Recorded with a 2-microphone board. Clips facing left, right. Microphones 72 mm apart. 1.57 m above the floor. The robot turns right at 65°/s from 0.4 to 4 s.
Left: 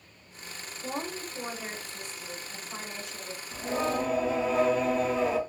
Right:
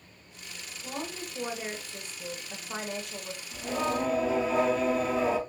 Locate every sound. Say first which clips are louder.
0.8 s a woman speaking: left 2 dB; 155° left, 1.0 m; by 3.4 s 40° right, 1.0 m
3.5 s singing: left 1 dB; 150° left, 0.6 m; by 5.4 s straight behind, 0.6 m